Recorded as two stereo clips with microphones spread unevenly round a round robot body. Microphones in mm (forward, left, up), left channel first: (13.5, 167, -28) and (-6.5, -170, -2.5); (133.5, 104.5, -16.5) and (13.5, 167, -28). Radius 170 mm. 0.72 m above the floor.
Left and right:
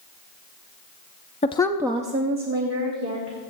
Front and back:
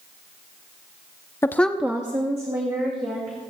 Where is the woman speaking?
35° left, 0.6 m; by 3.4 s 150° right, 2.0 m.